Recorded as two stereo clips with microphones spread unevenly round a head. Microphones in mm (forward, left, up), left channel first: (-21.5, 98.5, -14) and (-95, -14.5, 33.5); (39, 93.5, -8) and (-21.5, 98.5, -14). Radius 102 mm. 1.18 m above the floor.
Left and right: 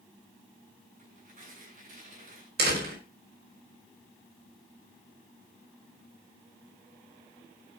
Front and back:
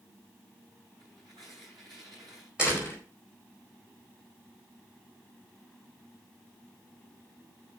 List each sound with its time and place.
1.0 s tearing paper: 140° right, 8.5 m
2.6 s a door slam: 100° right, 4.5 m